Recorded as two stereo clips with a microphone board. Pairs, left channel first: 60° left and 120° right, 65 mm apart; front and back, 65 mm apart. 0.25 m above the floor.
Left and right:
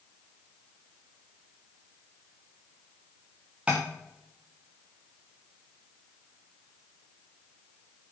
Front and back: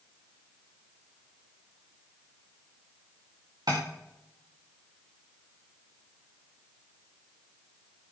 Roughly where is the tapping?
Behind.